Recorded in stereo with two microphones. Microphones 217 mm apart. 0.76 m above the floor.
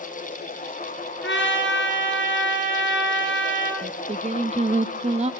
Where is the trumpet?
60° left (ahead or behind), 4 m.